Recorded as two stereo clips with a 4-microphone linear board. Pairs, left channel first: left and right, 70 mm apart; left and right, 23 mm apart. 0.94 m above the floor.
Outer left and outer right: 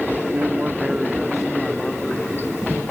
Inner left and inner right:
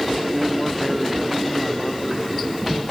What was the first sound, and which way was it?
A man speaking, 35° right (ahead or behind).